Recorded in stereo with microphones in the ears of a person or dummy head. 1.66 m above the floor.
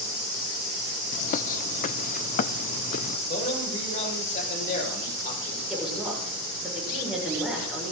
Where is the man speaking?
45° left (ahead or behind), 7.5 m.